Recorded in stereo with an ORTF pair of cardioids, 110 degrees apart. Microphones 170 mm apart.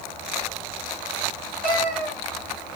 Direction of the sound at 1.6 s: 65° right.